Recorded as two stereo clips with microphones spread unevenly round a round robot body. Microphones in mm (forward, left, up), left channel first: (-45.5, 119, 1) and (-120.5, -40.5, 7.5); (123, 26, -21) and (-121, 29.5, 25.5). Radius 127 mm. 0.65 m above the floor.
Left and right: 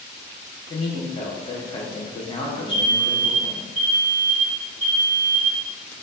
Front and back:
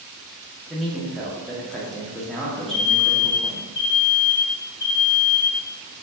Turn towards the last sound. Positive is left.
turn(degrees=-65)